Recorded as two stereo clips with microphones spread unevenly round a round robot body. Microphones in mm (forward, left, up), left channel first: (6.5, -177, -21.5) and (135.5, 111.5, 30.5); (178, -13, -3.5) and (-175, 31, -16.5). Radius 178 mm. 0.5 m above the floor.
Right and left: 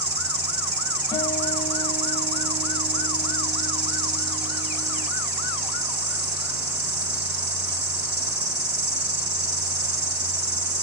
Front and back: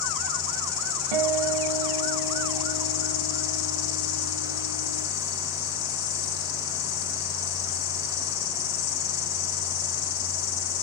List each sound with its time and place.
0.0 s an insect: 10° left, 3.5 m
1.1 s a guitar: 165° left, 1.2 m